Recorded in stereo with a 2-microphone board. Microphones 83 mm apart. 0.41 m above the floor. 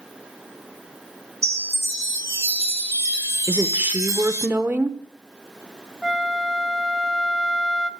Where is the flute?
5° right (ahead or behind), 0.8 m.